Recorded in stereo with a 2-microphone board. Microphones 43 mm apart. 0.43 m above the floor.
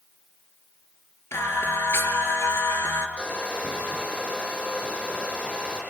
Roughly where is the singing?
Left.